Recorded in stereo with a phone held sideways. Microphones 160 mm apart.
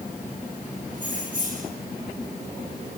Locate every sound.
0.9 s keys jangling: 55° right (ahead or behind), 5 m